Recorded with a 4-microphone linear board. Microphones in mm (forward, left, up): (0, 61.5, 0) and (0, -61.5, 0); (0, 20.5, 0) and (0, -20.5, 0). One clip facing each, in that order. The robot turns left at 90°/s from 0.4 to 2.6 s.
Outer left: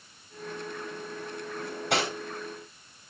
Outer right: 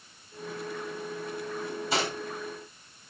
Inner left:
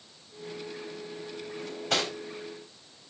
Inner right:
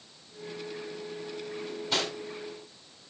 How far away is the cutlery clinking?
About 3.5 m.